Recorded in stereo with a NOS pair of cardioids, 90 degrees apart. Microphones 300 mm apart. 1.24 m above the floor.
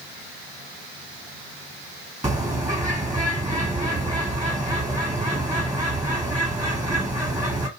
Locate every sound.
2.2 s a bird: 10° right, 1.3 m